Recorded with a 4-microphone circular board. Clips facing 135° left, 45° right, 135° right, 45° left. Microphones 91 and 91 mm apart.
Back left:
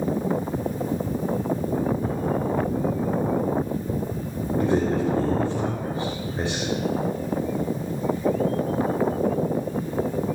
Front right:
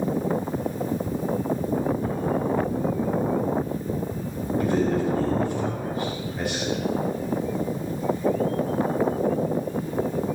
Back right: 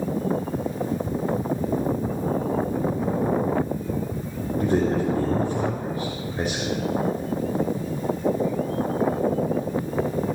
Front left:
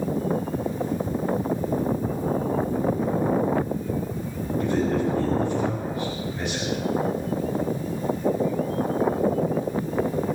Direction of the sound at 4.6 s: 170° right.